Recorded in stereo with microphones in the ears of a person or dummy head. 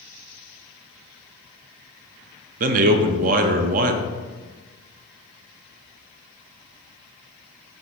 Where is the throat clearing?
No throat clearing in this recording.